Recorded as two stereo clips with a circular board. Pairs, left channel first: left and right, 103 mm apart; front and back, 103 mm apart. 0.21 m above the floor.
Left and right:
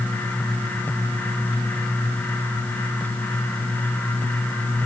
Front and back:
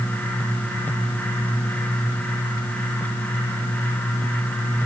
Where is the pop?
No pop in this recording.